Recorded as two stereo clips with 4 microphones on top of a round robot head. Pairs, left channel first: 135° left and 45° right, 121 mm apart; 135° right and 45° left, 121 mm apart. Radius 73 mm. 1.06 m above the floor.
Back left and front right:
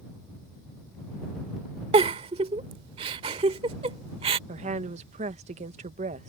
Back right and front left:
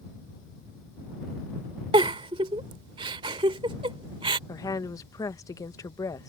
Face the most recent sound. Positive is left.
turn(degrees=-70)